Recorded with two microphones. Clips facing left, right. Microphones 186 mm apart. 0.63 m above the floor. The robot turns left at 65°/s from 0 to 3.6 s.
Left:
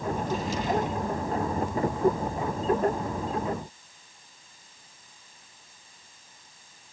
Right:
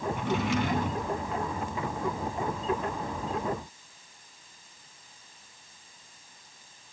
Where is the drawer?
75° right, 3 m; by 1.1 s 140° right, 3 m.